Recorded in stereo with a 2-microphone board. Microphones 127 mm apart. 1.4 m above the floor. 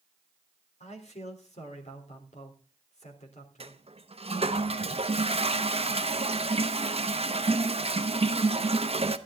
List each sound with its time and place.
0.8 s a man speaking: 65° left (ahead or behind), 3.5 m
3.6 s a toilet flushing: 50° right (ahead or behind), 0.9 m